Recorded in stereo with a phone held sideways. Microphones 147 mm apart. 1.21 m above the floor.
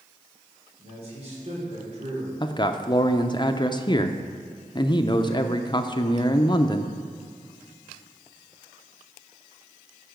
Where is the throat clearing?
I don't hear throat clearing.